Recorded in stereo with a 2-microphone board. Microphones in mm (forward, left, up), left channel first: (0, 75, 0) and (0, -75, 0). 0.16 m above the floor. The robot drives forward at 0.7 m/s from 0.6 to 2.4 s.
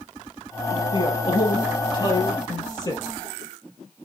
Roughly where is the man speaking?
Left.